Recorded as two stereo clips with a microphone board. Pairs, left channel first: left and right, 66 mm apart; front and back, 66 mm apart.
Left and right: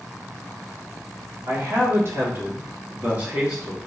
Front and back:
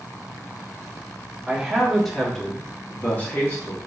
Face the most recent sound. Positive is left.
turn(degrees=-20)